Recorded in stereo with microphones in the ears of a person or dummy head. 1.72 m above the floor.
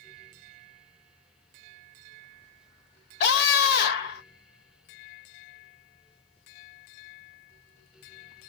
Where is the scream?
55° left (ahead or behind), 1.1 m.